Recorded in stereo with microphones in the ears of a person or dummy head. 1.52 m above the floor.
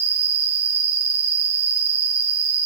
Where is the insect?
50° right (ahead or behind), 2.5 m.